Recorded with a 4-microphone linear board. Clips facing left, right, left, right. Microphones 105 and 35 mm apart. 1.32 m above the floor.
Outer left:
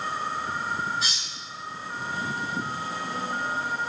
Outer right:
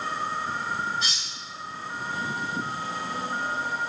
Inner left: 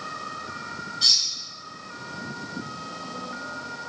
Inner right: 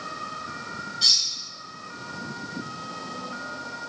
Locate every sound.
1.0 s cutlery clinking: centre (ahead or behind), 0.7 m